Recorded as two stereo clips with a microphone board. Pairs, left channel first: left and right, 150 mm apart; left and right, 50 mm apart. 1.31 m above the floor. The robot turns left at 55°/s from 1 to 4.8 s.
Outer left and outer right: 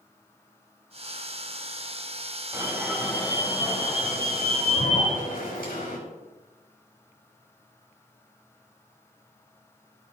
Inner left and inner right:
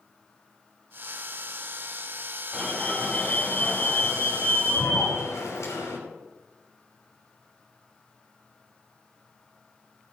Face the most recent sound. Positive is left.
turn(degrees=75)